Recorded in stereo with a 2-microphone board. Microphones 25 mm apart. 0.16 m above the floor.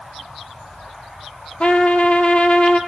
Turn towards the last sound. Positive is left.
turn(degrees=50)  # may be behind; listen again after turning